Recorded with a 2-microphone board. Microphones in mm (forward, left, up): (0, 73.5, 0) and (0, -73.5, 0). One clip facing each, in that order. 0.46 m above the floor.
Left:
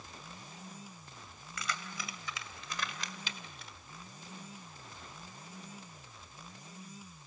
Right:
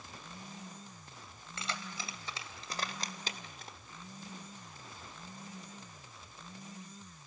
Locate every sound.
1.6 s keys jangling: 30° right (ahead or behind), 2.0 m; by 3.7 s 45° right (ahead or behind), 1.1 m